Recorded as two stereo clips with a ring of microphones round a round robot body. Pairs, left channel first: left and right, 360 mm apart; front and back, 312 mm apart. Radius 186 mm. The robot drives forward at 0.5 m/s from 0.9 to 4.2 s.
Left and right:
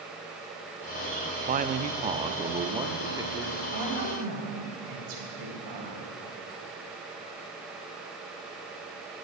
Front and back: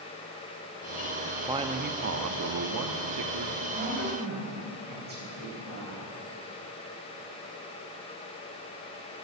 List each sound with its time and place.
1.5 s a man speaking: 115° right, 0.5 m; by 3.6 s 170° right, 1.3 m
3.7 s a woman speaking: 115° right, 3.5 m